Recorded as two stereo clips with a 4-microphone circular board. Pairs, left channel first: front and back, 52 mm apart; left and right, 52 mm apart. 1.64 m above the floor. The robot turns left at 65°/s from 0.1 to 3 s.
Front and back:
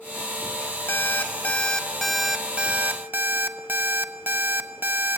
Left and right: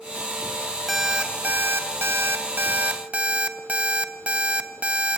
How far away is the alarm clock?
About 1.2 m.